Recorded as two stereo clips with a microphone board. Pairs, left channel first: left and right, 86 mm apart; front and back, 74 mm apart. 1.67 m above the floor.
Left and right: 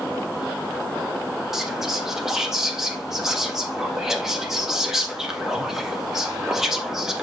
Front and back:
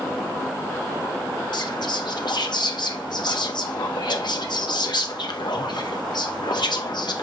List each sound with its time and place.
1.5 s whispering: 5° right, 1.5 m